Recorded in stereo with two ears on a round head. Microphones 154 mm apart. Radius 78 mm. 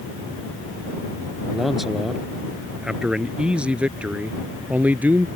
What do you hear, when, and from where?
1.5 s a man speaking: centre (ahead or behind); by 5.3 s 10° right (ahead or behind)